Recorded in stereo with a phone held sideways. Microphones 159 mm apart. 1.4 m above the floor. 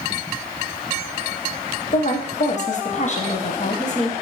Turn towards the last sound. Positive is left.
turn(degrees=50)  # may be behind; listen again after turning